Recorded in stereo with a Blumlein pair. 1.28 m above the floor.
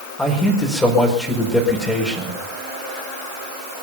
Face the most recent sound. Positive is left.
turn(degrees=10)